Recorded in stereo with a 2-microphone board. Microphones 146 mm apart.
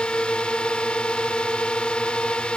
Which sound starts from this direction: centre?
A drone, at 0.0 s.